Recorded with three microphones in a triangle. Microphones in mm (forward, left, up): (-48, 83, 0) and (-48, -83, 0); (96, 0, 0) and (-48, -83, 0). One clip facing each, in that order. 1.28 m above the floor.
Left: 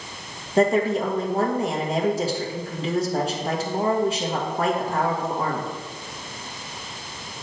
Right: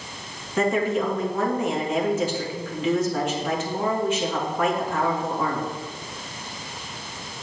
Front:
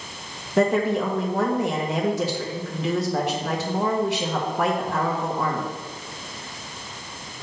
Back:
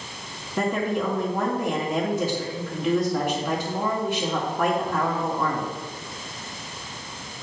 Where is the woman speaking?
35° left, 1.8 m.